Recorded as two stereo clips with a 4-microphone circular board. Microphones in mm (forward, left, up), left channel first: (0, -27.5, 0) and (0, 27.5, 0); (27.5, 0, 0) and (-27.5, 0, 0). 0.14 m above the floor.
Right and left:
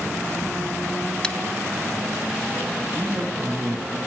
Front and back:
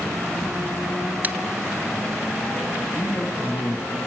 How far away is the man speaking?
About 7.5 m.